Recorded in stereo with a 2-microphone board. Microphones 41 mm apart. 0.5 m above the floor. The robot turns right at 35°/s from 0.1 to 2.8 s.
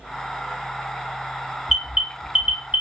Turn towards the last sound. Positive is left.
turn(degrees=-35)  # may be behind; listen again after turning